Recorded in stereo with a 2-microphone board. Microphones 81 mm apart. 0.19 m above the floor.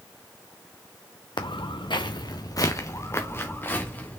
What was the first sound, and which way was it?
Footsteps, 75° left (ahead or behind).